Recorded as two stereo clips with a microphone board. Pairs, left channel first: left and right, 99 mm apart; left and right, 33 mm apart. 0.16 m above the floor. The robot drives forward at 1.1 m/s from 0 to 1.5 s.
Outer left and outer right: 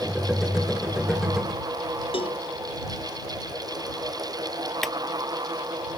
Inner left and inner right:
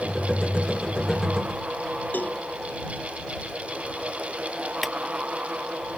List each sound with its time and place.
2.1 s a cowbell: 65° left (ahead or behind)
4.8 s a clap: centre (ahead or behind)